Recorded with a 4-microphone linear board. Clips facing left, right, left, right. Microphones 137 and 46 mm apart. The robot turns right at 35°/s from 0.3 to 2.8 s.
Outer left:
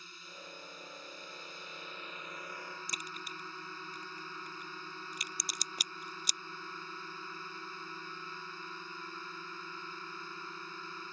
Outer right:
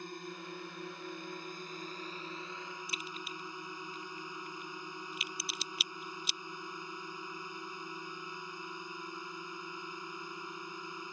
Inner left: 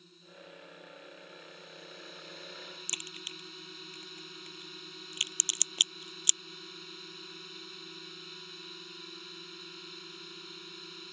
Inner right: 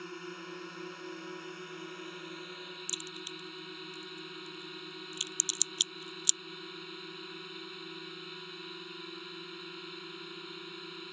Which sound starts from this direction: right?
A drone, at 0.0 s.